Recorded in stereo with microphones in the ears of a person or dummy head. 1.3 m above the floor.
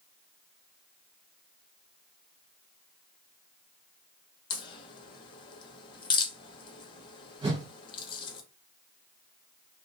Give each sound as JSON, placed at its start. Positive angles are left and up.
{"t": 4.5, "sound": "a crack", "side_deg": 30, "distance_m": 0.7}
{"t": 7.4, "sound": "a whoosh", "side_deg": -35, "distance_m": 0.9}